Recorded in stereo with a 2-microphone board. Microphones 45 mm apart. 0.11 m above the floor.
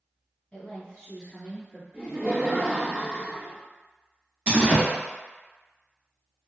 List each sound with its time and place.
0.5 s a woman speaking: 30° left (ahead or behind), 1.2 m; by 1.8 s centre (ahead or behind), 1.2 m
1.9 s laughter: 20° right (ahead or behind), 1.2 m
4.5 s a door slam: 30° right (ahead or behind), 1.1 m